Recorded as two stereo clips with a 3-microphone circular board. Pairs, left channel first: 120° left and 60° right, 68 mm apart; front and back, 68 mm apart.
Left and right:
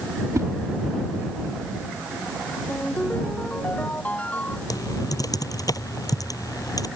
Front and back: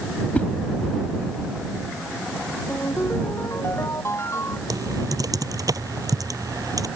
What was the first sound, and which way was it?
A whoosh, 60° right.